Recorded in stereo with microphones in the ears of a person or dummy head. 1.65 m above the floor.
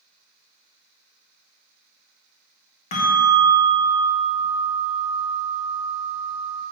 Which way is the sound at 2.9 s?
35° left (ahead or behind).